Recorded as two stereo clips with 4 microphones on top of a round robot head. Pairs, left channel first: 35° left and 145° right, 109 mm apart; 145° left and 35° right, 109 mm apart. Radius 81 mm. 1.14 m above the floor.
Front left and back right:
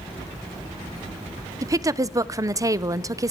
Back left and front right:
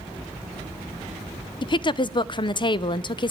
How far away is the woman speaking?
About 0.7 m.